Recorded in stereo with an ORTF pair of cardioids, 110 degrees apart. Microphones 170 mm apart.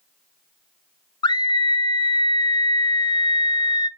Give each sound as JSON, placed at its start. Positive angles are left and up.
{"t": 1.2, "sound": "a scream", "azimuth_deg": 25, "distance_m": 0.6}